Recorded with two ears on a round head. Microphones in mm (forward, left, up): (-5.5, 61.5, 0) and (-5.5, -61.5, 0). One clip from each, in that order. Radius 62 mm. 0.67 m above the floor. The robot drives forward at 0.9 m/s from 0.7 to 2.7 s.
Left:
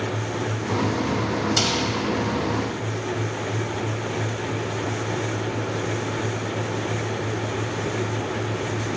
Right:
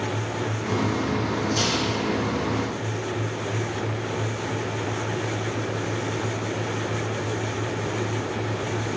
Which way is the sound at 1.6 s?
60° left (ahead or behind).